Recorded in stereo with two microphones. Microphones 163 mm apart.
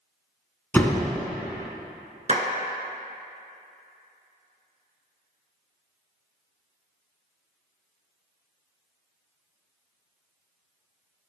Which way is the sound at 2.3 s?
45° right (ahead or behind).